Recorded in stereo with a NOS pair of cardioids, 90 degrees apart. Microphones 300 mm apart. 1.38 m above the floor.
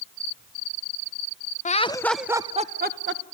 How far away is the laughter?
About 0.9 m.